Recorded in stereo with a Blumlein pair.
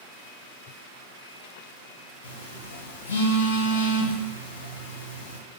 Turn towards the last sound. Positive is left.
turn(degrees=60)